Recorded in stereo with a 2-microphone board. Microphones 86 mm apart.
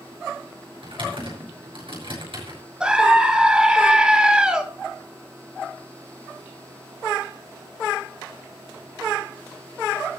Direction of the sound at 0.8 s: 75° right (ahead or behind).